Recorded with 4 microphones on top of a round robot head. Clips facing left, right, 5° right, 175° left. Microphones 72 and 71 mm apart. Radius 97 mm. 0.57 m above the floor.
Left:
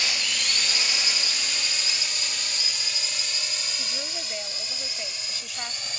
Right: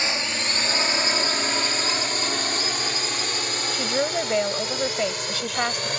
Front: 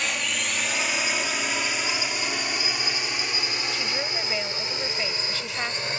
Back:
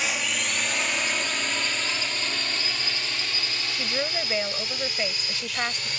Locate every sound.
0.0 s a drone: 100° right; by 6.0 s 65° right
3.7 s a woman speaking: 105° right